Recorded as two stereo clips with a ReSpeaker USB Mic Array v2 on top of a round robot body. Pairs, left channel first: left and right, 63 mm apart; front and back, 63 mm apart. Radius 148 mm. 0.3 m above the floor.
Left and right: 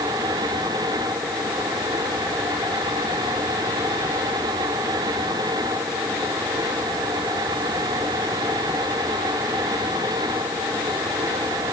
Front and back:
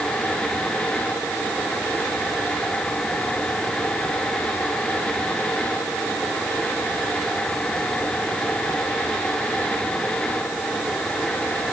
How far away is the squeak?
No squeak in this recording.